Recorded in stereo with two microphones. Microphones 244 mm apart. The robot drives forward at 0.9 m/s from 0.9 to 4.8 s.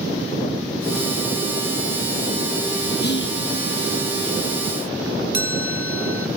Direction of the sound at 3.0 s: 40° left (ahead or behind).